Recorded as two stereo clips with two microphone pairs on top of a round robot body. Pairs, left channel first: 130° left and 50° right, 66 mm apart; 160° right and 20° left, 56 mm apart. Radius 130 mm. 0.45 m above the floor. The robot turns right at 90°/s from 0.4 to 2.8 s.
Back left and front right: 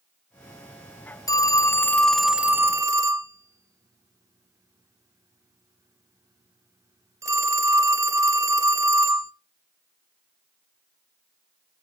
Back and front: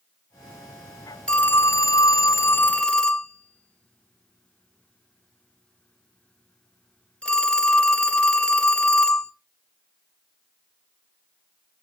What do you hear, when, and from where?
1.3 s a phone ringing: 130° left, 0.8 m; by 9.3 s 90° right, 0.8 m